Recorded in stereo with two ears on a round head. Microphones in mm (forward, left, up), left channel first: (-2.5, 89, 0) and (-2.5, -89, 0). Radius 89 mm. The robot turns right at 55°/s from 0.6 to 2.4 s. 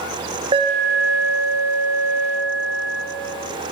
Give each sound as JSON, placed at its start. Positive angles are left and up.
{"t": 0.5, "sound": "an alarm", "azimuth_deg": -155, "distance_m": 1.4}